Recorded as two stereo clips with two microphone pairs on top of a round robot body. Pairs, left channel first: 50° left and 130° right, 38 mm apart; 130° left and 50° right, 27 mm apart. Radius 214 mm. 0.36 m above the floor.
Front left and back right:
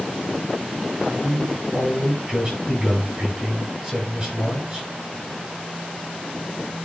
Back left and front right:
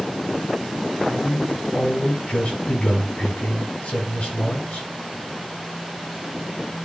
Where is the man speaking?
165° left, 8 m.